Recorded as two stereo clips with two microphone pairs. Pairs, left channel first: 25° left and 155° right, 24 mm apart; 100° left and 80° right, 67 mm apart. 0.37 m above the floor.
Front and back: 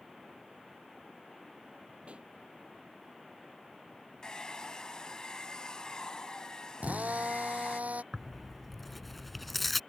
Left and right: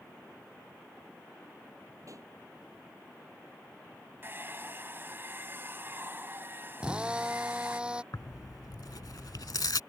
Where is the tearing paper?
115° left.